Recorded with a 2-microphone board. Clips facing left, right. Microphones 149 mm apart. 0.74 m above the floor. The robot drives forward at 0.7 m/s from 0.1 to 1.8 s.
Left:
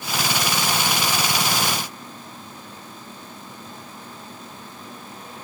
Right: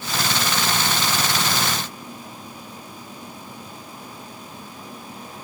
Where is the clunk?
No clunk in this recording.